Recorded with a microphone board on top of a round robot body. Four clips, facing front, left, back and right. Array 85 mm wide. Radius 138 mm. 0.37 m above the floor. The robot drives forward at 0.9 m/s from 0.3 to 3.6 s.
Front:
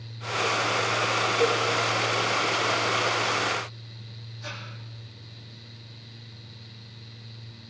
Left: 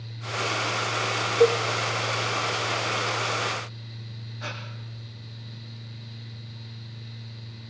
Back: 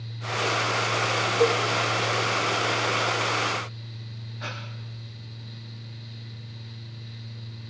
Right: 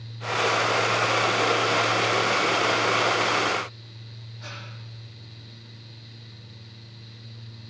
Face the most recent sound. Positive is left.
turn(degrees=150)